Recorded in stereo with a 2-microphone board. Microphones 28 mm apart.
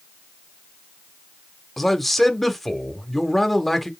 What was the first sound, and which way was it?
A man speaking, 5° left (ahead or behind).